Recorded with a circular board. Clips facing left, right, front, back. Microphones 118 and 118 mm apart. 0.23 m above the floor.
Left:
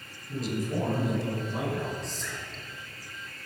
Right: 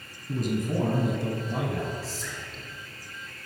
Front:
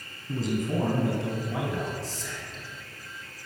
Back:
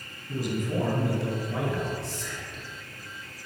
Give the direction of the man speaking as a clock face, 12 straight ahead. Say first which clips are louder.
Right 3 dB, front 1 dB; 2 o'clock.